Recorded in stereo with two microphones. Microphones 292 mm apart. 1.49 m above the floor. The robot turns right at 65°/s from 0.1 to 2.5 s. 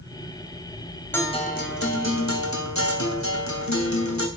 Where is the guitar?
5° left, 2.5 m; by 4.3 s 95° left, 2.5 m.